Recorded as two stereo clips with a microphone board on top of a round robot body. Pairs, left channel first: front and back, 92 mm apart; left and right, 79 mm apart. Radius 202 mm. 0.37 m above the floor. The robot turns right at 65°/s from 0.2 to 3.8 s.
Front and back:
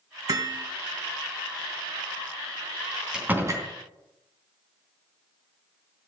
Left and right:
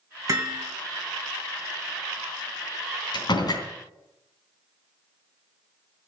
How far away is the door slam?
About 3.5 m.